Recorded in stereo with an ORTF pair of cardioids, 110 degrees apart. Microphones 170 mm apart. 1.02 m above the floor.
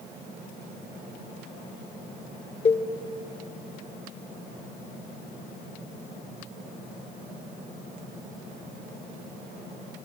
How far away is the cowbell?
About 1.9 m.